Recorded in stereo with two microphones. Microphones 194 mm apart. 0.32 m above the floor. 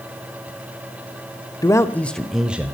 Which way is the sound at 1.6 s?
15° left (ahead or behind).